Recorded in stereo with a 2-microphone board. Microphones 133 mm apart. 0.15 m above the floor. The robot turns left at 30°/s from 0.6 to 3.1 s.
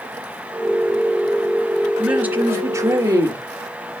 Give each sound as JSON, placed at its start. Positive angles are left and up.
{"t": 2.0, "sound": "a man speaking", "azimuth_deg": -10, "distance_m": 2.0}